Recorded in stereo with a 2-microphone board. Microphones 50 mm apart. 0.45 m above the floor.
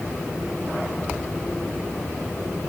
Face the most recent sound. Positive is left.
No sound to turn to.